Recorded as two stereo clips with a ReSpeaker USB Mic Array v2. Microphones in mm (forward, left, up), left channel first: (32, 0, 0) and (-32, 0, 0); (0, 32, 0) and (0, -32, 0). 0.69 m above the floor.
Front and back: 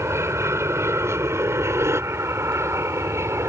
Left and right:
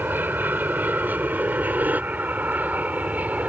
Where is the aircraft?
145° right; by 3.5 s 150° right.